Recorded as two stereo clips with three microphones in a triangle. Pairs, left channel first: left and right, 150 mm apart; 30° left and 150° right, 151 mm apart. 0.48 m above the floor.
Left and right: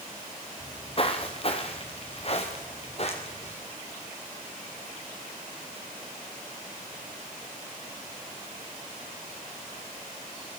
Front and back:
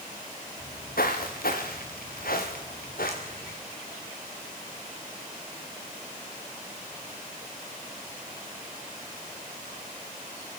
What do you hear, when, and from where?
0.6 s footsteps: 40° left, 3.5 m; by 3.5 s 45° left, 6 m